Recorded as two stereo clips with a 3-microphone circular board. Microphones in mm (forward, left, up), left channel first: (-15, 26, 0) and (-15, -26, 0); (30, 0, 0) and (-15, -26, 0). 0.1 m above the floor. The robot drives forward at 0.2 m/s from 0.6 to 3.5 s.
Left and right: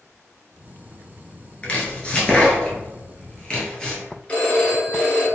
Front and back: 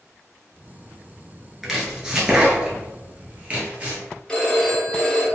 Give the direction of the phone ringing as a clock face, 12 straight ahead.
9 o'clock.